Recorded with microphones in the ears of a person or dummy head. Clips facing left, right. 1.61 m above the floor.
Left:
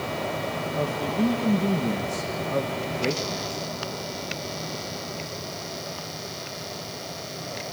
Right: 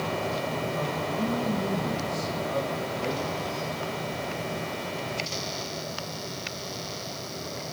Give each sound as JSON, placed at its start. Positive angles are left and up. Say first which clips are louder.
{"t": 0.8, "sound": "a woman speaking", "louder": "left 4 dB", "side_deg": 35, "distance_m": 1.8}